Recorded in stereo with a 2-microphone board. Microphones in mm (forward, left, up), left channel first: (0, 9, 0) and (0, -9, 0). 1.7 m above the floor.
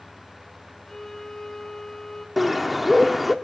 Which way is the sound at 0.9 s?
35° left (ahead or behind).